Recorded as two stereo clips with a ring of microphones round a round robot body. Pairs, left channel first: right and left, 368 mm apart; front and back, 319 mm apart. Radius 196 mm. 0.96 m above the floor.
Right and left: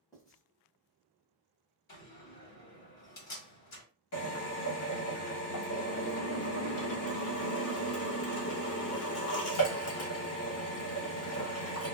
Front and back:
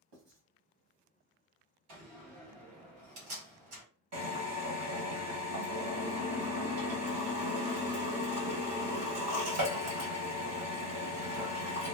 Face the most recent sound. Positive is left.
turn(degrees=-140)